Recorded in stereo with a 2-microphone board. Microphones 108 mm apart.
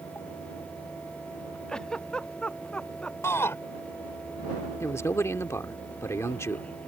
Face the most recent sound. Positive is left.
turn(degrees=25)  # may be behind; listen again after turning